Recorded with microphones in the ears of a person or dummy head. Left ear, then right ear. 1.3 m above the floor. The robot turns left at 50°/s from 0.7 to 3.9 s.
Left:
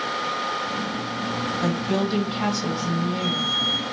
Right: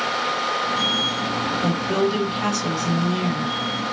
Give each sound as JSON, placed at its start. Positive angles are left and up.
{"t": 1.6, "sound": "a woman speaking", "azimuth_deg": 80, "distance_m": 1.4}